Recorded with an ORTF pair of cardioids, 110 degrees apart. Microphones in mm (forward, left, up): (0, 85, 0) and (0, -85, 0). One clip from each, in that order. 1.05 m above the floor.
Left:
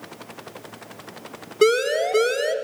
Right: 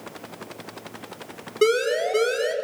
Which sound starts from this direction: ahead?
A siren, at 1.6 s.